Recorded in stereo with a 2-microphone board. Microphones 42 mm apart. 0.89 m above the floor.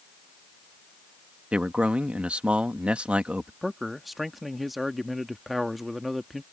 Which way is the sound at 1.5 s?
30° right (ahead or behind).